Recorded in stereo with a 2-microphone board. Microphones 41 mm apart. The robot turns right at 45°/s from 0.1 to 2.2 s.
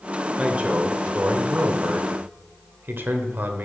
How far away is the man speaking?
About 1.3 m.